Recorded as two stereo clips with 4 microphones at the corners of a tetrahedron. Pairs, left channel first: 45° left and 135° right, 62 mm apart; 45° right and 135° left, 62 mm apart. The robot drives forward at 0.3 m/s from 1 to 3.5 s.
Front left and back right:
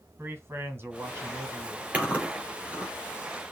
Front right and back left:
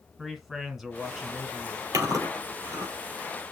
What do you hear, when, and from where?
0.2 s a man speaking: 145° right, 1.6 m; by 1.9 s 150° right, 1.7 m
1.9 s chewing: 155° left, 3.5 m; by 2.9 s 160° left, 3.5 m